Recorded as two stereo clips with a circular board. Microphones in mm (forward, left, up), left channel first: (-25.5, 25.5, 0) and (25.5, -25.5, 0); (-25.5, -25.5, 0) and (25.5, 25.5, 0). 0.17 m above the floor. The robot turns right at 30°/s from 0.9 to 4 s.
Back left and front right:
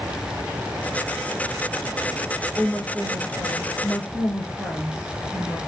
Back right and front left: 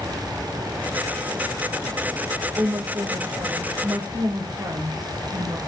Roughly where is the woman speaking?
Ahead.